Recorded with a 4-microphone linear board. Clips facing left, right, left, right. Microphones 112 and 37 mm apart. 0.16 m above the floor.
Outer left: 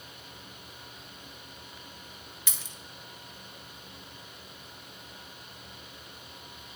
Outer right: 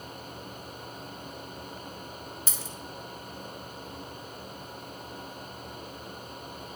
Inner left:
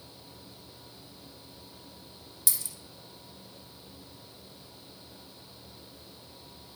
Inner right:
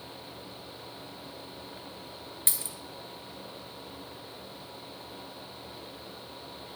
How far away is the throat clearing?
No throat clearing in this recording.